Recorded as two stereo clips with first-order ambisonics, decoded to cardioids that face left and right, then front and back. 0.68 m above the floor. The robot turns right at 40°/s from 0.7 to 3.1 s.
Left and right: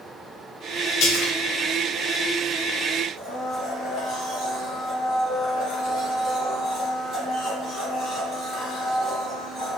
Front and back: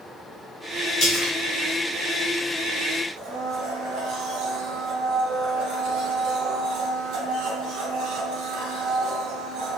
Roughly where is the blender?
Behind.